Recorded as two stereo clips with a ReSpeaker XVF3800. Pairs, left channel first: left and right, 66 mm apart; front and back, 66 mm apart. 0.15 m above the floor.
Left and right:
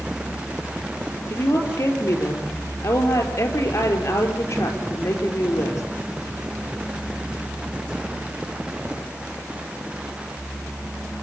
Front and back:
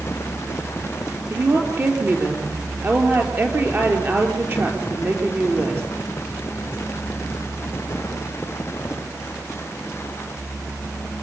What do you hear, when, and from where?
1.3 s a woman speaking: 125° left, 4.5 m